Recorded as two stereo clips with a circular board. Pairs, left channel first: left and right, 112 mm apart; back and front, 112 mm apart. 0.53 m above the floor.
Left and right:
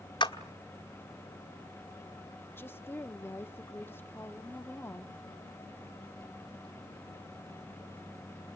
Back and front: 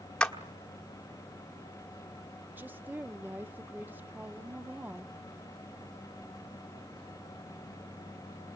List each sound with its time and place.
0.2 s a clap: 100° left, 1.2 m
2.6 s a woman speaking: 50° left, 0.7 m